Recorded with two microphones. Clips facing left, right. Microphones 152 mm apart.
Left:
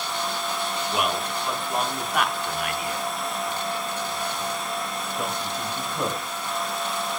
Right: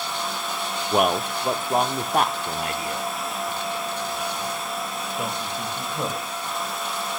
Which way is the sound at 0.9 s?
45° right (ahead or behind).